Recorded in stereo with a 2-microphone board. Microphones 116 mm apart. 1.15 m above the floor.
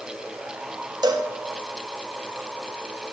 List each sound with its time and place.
1.0 s a cowbell: 35° right (ahead or behind), 0.9 m